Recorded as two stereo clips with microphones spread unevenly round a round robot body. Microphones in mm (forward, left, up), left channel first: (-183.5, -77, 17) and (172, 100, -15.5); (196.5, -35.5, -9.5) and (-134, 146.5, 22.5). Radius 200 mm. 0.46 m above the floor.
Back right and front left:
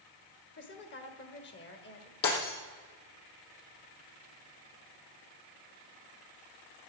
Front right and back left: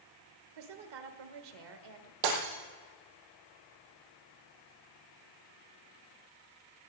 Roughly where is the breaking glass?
Behind left.